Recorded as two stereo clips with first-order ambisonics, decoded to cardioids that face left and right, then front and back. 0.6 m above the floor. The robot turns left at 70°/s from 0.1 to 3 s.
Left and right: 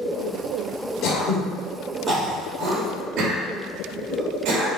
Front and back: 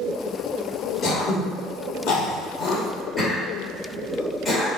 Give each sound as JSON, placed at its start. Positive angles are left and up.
{"t": 1.0, "sound": "throat clearing", "azimuth_deg": 60, "distance_m": 2.0}